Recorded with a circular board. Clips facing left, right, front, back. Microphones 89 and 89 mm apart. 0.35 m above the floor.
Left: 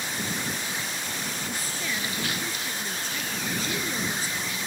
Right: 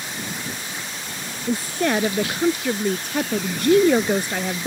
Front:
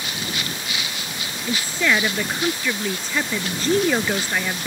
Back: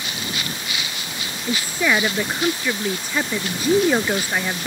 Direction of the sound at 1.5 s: 105° right.